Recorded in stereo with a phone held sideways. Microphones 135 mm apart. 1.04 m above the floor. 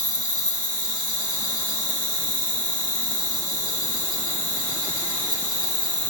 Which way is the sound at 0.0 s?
75° left (ahead or behind).